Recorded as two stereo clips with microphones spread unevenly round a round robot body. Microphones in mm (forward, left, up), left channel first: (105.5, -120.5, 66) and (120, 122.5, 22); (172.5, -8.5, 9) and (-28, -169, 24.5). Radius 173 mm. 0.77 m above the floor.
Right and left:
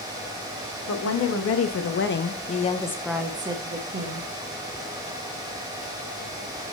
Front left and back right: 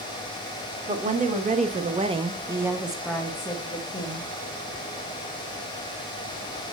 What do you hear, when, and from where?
0.9 s a woman speaking: 80° right, 1.8 m; by 4.3 s 100° left, 1.4 m